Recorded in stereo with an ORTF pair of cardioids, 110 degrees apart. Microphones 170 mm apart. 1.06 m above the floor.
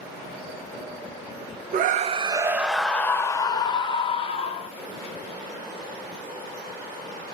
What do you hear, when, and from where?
1.7 s a scream: 55° right, 0.5 m; by 4.7 s 35° left, 1.4 m